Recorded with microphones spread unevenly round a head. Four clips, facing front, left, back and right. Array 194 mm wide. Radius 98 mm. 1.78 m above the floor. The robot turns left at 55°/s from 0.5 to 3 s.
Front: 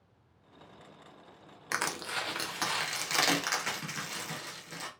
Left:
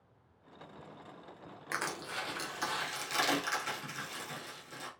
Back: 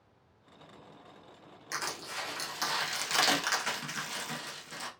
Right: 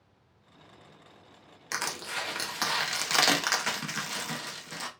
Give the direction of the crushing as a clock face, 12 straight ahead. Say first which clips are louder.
Right 3 dB, front 4 dB; 12 o'clock.